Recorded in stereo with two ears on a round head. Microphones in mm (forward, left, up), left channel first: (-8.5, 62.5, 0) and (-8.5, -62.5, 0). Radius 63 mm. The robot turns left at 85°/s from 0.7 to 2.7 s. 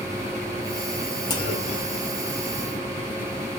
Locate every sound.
1.3 s a clunk: 150° left, 2.5 m; by 2.0 s 90° left, 2.5 m